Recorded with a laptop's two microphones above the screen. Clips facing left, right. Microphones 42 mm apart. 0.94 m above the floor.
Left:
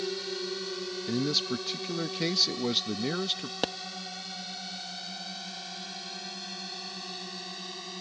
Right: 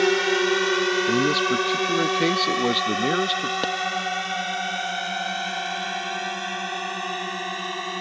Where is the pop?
5° right (ahead or behind).